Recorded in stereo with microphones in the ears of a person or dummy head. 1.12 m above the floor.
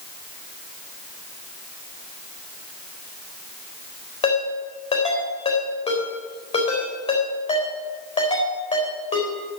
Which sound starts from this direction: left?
A ringtone, at 4.2 s.